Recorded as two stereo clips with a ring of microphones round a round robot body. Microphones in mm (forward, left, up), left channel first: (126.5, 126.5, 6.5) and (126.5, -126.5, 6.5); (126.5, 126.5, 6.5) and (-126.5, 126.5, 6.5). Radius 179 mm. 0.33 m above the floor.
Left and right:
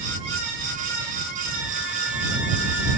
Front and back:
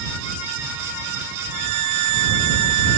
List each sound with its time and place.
1.5 s a violin: 175° right